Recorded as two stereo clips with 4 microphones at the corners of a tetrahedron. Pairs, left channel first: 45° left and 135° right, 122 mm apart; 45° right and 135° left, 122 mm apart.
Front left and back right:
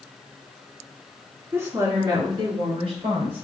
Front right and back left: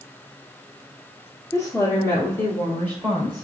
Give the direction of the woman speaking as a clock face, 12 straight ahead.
3 o'clock.